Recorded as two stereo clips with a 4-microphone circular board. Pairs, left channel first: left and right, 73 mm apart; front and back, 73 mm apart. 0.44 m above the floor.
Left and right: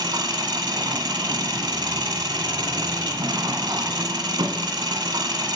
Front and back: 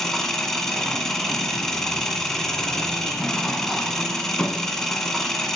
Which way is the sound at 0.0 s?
80° right.